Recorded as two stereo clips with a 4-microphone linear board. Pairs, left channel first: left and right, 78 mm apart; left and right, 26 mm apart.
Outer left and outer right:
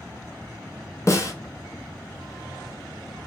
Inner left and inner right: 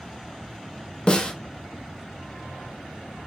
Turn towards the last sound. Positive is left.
turn(degrees=40)  # may be behind; listen again after turning